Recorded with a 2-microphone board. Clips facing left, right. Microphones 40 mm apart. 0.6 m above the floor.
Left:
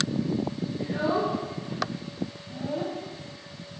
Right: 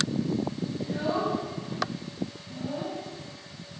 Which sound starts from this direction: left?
A child speaking, at 0.8 s.